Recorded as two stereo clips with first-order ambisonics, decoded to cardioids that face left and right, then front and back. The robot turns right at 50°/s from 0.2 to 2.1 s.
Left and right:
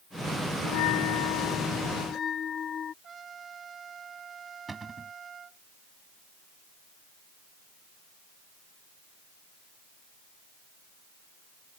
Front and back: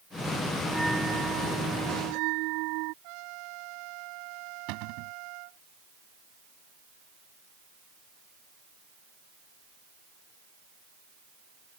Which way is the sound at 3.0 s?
160° right.